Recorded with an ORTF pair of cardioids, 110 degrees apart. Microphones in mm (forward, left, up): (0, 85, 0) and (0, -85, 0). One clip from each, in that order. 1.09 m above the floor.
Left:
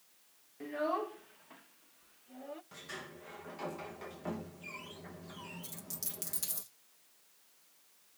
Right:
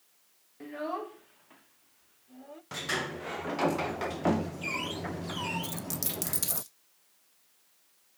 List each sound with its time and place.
0.6 s a child speaking: 5° right, 0.7 m; by 2.6 s 10° left, 2.0 m
2.7 s a sliding door: 70° right, 0.5 m
5.6 s a dropped coin: 45° right, 1.4 m